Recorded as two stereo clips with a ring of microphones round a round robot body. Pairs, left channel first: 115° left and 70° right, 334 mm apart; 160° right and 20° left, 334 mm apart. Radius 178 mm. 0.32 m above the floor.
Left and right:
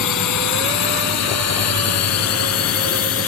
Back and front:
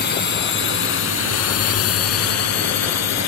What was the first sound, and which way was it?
A drone, 145° left.